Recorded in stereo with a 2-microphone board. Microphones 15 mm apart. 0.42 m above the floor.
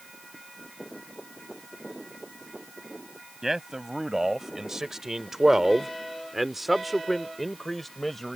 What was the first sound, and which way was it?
A man speaking, 25° right (ahead or behind).